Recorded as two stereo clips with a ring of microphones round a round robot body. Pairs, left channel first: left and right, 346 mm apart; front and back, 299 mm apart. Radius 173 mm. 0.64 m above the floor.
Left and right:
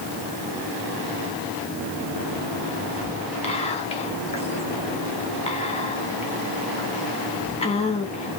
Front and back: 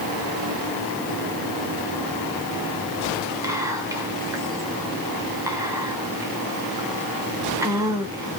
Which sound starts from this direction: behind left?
Whispering, at 3.4 s.